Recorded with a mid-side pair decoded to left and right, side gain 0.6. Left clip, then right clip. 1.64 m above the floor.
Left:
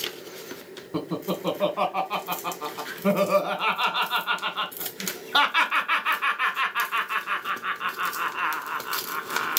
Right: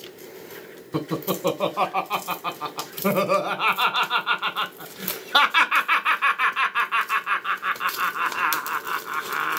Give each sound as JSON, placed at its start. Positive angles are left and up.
{"t": 0.9, "sound": "laughter", "azimuth_deg": -30, "distance_m": 1.0}